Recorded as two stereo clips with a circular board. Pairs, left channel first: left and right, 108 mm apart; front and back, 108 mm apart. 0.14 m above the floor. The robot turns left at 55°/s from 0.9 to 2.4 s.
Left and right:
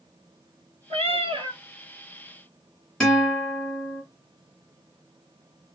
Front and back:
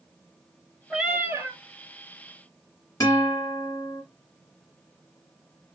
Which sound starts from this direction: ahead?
A guitar, at 3.0 s.